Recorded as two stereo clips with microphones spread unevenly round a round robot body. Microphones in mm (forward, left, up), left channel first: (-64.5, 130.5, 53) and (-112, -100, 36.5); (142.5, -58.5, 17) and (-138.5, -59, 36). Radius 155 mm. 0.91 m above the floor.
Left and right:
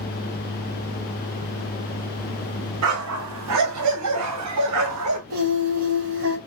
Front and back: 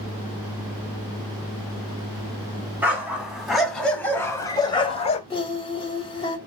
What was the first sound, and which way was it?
A dog barking, 95° right.